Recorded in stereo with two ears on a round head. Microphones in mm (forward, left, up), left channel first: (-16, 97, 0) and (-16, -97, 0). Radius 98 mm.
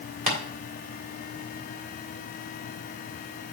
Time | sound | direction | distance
0.3 | tapping | 40° right (ahead or behind) | 1.9 m